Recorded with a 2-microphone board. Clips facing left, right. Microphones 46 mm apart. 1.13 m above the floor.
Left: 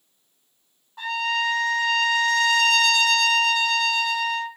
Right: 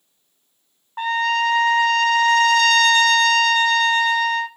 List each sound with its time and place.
1.0 s a trumpet: 50° right (ahead or behind), 0.7 m